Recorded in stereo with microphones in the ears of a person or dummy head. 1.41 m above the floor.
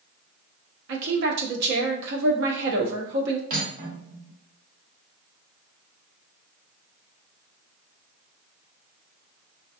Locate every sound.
0.9 s a woman speaking: 60° right (ahead or behind), 1.1 m
3.5 s cutlery clinking: 45° right (ahead or behind), 1.7 m